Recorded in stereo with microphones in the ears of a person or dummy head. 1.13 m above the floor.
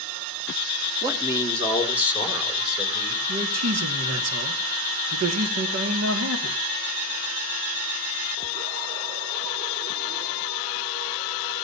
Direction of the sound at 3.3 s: 70° right (ahead or behind).